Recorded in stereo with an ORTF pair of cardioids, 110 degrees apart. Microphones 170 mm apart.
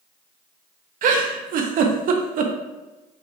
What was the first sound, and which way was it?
A giggle, 60° right.